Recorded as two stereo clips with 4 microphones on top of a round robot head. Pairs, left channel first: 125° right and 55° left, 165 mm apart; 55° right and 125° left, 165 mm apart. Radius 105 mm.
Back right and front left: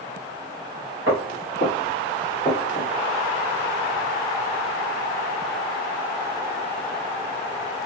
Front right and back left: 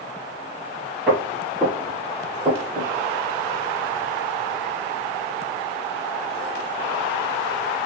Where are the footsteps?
40° left, 1.4 m; by 2.9 s 175° right, 1.5 m.